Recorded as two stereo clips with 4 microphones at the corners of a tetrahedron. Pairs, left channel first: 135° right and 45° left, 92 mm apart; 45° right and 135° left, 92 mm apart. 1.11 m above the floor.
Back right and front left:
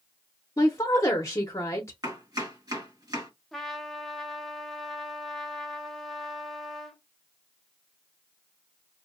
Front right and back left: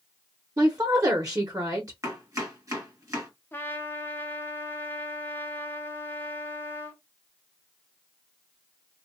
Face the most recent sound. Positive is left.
turn(degrees=-55)